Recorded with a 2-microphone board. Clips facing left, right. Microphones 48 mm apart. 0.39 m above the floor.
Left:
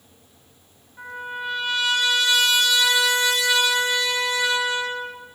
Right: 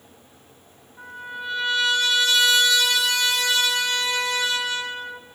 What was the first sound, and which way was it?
A trumpet, 10° left (ahead or behind).